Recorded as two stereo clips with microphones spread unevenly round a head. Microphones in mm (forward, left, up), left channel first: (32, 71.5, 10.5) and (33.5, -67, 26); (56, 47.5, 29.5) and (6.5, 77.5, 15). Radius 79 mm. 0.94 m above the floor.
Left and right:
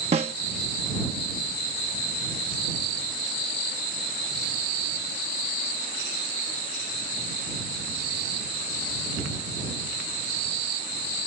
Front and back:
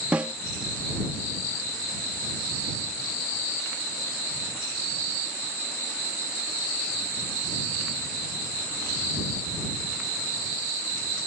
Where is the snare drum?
140° right.